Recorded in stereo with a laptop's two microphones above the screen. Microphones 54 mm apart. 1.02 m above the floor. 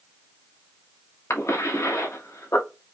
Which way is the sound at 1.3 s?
60° left (ahead or behind).